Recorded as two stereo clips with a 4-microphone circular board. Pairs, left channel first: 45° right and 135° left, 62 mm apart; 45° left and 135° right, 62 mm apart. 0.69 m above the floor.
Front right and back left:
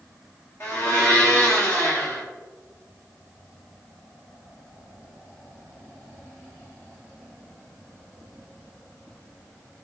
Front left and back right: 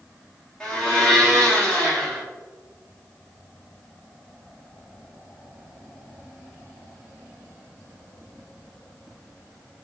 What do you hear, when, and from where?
0.6 s a blender: 25° right, 1.4 m